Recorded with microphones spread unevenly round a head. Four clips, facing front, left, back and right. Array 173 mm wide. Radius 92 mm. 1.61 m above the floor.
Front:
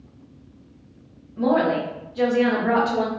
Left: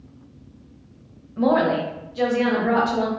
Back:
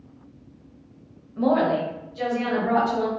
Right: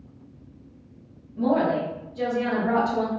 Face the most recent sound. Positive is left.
turn(degrees=0)